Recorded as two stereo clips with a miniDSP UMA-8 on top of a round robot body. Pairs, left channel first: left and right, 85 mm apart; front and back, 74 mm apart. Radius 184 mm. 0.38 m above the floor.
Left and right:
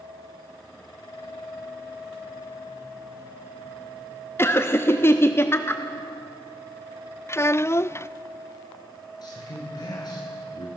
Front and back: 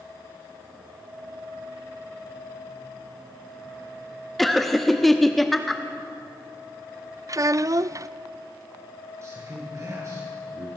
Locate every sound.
4.4 s laughter: 85° left, 1.5 m
7.3 s a child speaking: 145° left, 0.6 m
9.2 s a man speaking: 130° left, 8.5 m